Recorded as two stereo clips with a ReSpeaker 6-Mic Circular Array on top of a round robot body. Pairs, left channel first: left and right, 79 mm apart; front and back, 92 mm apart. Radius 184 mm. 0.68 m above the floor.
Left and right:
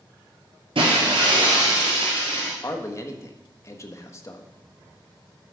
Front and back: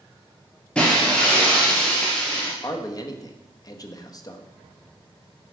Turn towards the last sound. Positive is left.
turn(degrees=40)